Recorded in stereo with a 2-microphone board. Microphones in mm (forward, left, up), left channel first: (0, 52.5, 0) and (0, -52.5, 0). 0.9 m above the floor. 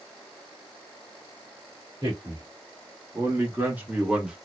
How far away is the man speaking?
About 1.4 m.